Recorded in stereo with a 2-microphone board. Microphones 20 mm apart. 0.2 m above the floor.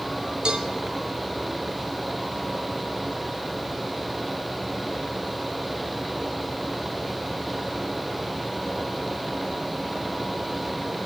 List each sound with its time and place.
0.5 s a cowbell: 50° right (ahead or behind), 1.8 m